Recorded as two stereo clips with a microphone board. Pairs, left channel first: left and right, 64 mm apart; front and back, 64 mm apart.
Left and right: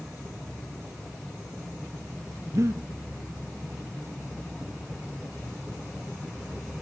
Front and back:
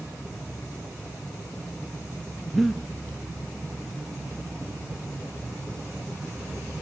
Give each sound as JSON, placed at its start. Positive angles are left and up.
{"t": 2.5, "sound": "breathing", "azimuth_deg": -90, "distance_m": 1.4}